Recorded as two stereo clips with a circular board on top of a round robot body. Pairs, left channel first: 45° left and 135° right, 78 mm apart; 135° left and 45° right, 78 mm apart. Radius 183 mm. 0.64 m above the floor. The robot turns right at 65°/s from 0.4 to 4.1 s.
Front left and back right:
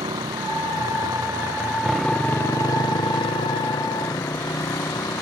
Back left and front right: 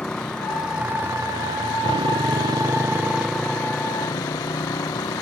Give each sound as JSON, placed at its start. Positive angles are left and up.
{"t": 0.0, "sound": "a motorcycle", "azimuth_deg": -145}